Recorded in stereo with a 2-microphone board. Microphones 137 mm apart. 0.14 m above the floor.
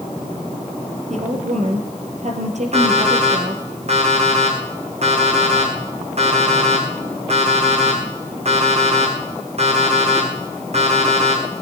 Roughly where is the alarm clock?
Right.